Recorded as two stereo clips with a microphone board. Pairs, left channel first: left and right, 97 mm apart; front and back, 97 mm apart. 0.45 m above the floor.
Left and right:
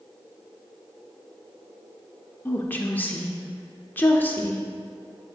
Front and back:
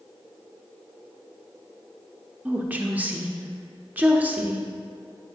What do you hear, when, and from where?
2.5 s a woman speaking: 130° left, 0.7 m